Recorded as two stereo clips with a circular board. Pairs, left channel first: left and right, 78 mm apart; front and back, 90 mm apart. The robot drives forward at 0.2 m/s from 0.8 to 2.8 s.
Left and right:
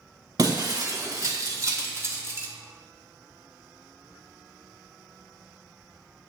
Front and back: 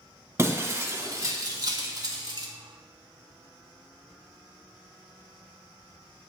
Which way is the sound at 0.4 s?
120° right.